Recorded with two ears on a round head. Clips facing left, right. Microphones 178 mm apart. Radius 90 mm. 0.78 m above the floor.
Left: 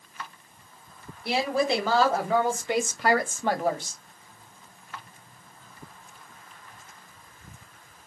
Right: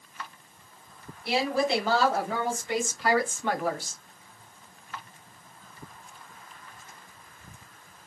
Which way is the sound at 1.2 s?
75° left (ahead or behind).